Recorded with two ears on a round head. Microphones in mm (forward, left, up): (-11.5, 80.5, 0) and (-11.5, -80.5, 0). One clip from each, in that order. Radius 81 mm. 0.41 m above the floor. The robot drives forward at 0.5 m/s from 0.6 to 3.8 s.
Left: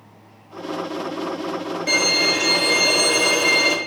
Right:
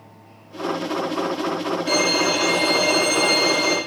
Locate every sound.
1.9 s a violin: 40° left (ahead or behind), 1.0 m; by 3.8 s 60° left (ahead or behind), 0.7 m